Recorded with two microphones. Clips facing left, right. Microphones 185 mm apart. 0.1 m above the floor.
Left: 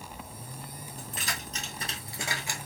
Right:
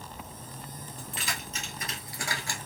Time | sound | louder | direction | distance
1.0 | keys jangling | even | 45° left (ahead or behind) | 1.8 m